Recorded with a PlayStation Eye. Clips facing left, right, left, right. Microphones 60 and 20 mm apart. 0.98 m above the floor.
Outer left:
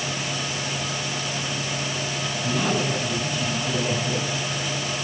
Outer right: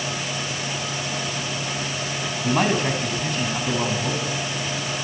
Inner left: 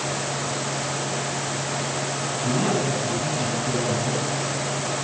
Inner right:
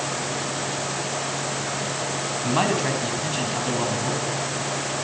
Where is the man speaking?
60° right (ahead or behind), 8 m.